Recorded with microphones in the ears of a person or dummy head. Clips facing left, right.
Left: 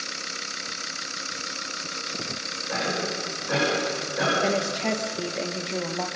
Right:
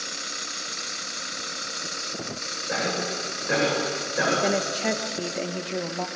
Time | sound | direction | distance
2.7 | a cough | 30° right (ahead or behind) | 8.5 m
4.4 | a woman speaking | 5° right (ahead or behind) | 2.5 m